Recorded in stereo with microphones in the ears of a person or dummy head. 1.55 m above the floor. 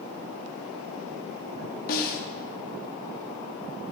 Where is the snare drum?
50° left (ahead or behind), 0.7 m.